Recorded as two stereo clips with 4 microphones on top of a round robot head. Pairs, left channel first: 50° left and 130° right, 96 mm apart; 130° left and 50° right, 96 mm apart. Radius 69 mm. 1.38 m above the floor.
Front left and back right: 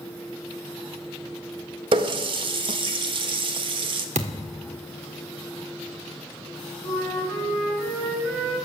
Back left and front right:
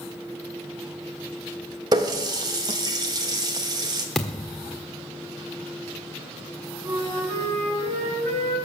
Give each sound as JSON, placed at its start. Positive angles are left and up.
{"t": 1.9, "sound": "a running tap", "azimuth_deg": -100, "distance_m": 1.0}
{"t": 4.2, "sound": "a thud", "azimuth_deg": -140, "distance_m": 1.4}
{"t": 6.8, "sound": "a flute", "azimuth_deg": -25, "distance_m": 7.5}